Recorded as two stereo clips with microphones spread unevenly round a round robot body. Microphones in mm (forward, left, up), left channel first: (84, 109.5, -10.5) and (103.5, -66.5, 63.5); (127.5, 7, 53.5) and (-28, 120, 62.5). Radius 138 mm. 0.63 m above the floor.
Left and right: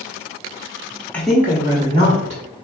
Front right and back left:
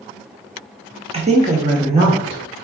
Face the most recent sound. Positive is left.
turn(degrees=-155)